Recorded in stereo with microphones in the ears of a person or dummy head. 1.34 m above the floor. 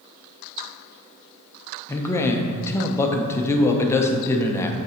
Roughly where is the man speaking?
Left.